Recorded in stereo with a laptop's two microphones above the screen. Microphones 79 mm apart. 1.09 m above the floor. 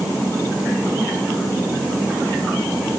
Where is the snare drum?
No snare drum in this recording.